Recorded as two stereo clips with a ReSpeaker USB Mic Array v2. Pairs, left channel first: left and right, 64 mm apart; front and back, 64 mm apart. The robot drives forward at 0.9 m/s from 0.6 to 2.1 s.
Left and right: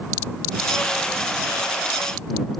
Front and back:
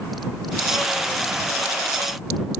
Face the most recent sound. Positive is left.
No sound to turn to.